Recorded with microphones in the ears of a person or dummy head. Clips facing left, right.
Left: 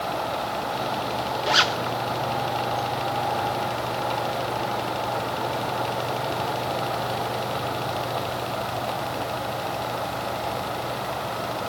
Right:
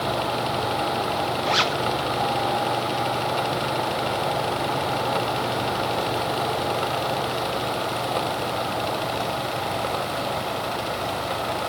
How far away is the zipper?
About 0.8 m.